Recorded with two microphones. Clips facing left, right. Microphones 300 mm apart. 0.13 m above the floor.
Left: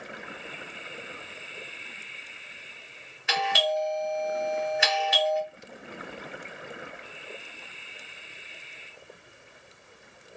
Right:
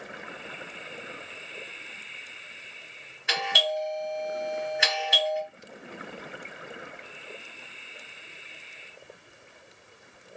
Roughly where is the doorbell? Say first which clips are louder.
Left 2 dB; centre.